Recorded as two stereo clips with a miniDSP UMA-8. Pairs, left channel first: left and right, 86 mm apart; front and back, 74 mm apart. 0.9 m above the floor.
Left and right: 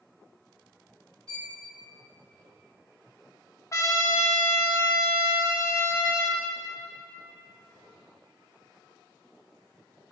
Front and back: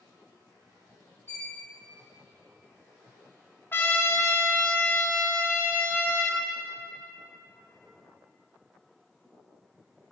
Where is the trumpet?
50° left, 0.6 m.